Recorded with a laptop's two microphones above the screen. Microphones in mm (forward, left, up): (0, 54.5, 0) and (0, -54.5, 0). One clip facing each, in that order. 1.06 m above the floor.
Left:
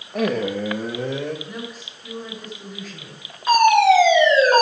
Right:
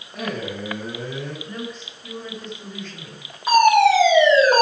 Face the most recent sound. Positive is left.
turn(degrees=-5)  # may be behind; listen again after turning